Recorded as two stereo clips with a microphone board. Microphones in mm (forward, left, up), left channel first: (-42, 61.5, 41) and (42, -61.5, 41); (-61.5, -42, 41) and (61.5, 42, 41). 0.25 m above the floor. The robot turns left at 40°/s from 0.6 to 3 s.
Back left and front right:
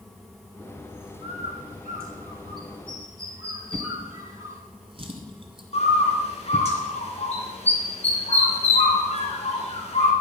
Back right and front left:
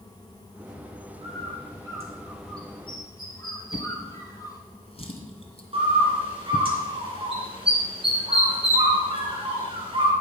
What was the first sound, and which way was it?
A bird, 5° right.